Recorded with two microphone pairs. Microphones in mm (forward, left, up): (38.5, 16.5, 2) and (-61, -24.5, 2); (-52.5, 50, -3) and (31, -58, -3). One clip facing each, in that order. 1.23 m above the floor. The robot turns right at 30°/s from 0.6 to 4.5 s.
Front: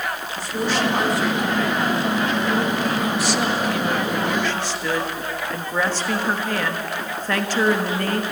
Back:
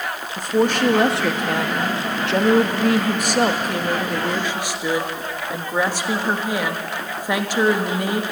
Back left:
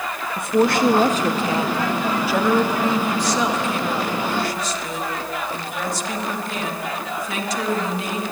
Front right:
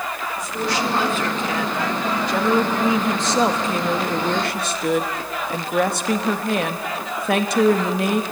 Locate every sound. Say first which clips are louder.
0.4 s a woman speaking: back 5 dB, back left 8 dB; 160° left, 1.6 m; by 8.2 s 80° right, 1.6 m